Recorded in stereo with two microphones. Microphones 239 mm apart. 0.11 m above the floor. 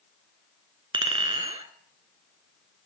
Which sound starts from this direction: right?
A clink, at 0.9 s.